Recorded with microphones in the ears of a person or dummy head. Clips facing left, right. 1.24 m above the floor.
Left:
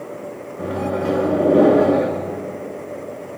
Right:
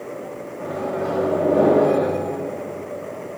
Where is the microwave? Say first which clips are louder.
Left 3 dB; 40° left (ahead or behind), 1.8 m.